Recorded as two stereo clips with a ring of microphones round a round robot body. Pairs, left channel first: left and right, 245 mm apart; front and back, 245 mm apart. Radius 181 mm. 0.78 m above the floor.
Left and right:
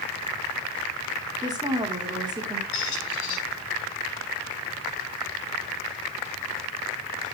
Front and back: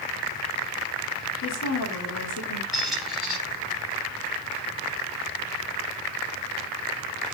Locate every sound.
1.4 s a woman speaking: 20° right, 2.5 m
2.7 s a squeak: 90° left, 5 m